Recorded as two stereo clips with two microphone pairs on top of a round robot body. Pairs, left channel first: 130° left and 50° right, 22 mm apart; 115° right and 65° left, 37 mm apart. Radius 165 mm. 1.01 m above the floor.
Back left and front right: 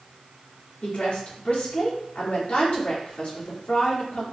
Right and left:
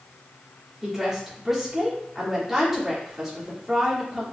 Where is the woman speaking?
150° left, 2 m.